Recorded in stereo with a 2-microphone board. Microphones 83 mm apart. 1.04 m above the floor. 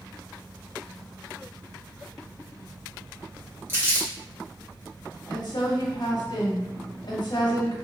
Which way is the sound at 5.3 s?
60° left (ahead or behind).